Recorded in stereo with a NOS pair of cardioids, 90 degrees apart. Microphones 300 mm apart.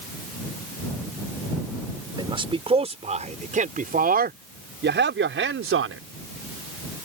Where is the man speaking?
15° right; by 6.0 s 45° right.